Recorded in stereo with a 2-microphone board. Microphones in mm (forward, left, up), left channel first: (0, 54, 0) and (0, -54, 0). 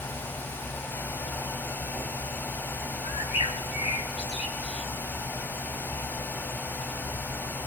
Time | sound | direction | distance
3.0 | a bird | 70° left (ahead or behind) | 1.8 m